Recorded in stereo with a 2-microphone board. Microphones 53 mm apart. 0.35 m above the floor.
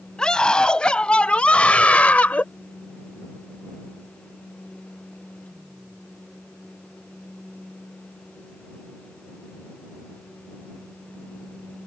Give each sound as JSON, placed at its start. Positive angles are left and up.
{"t": 0.2, "sound": "a scream", "side_deg": 15}